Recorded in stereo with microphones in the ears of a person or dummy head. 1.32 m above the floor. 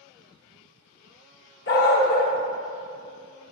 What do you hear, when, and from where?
1.7 s a dog barking: 60° left (ahead or behind), 1.4 m